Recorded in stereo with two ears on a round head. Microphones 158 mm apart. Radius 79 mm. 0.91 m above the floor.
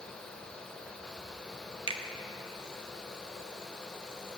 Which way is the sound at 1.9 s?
25° right (ahead or behind).